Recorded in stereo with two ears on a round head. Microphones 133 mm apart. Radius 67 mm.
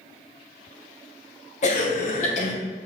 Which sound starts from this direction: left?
A cough, at 1.6 s.